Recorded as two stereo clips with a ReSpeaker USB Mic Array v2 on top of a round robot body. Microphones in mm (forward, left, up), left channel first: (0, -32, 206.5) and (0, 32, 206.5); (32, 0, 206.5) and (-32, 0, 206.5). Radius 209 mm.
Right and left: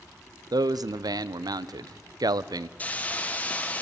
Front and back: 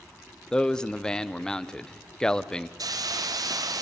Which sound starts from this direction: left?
A man speaking, at 0.5 s.